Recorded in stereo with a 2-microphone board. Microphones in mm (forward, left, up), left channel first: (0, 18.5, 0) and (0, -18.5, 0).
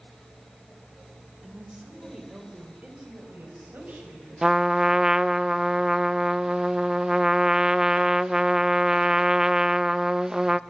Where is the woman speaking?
15° right (ahead or behind), 4 m; by 4.8 s 60° right (ahead or behind), 7 m.